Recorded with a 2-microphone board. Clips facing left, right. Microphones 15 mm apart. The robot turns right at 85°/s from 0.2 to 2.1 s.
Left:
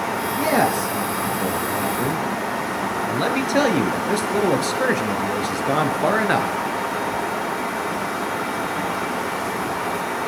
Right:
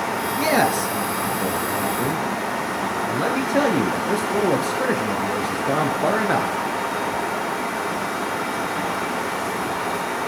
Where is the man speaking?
80° right, 2.5 m; by 6.5 s 65° left, 2.5 m.